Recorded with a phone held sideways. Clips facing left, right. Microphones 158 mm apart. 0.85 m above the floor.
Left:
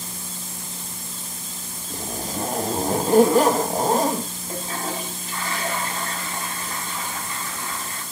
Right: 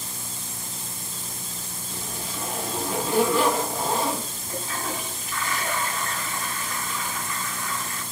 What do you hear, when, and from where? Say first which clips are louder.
1.9 s a zipper: left 6 dB; 45° left (ahead or behind), 1.0 m
4.5 s a toilet flushing: left 2 dB; 35° left (ahead or behind), 1.8 m